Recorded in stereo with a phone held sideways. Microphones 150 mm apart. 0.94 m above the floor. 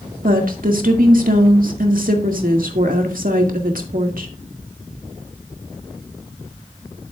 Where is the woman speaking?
70° right (ahead or behind), 2 m.